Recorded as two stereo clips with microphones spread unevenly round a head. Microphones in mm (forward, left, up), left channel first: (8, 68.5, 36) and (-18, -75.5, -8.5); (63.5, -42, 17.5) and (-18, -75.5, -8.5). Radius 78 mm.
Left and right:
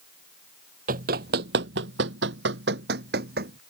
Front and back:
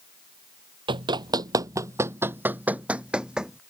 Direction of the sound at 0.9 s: 135° right.